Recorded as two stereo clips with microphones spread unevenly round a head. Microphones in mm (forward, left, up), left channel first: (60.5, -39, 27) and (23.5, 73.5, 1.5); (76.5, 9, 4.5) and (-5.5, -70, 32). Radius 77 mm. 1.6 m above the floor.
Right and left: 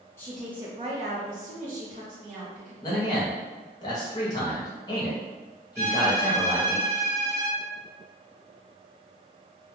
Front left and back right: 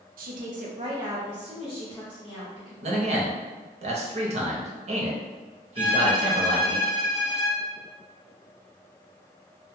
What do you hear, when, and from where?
0.2 s a woman speaking: 150° right, 0.5 m; by 2.7 s 115° left, 1.4 m
2.8 s a man speaking: 130° right, 0.7 m
5.8 s a violin: straight behind, 1.7 m